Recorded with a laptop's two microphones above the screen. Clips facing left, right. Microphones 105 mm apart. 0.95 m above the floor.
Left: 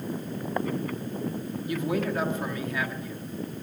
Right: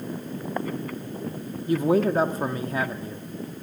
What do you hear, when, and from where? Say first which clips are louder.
1.7 s a man speaking: right 8 dB; 35° right (ahead or behind), 1.5 m